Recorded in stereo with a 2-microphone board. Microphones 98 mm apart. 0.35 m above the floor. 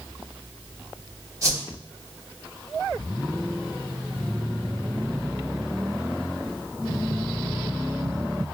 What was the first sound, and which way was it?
A whoosh, 30° right (ahead or behind).